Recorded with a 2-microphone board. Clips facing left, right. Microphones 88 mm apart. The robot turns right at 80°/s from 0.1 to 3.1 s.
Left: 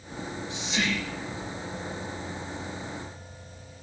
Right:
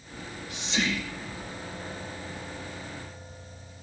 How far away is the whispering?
About 7 m.